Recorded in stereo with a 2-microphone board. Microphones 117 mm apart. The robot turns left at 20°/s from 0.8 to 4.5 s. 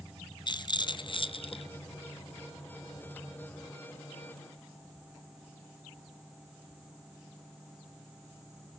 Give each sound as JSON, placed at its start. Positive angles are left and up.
{"t": 0.5, "sound": "a rattle", "side_deg": 40, "distance_m": 0.7}